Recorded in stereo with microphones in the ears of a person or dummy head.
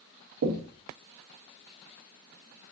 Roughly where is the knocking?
Right.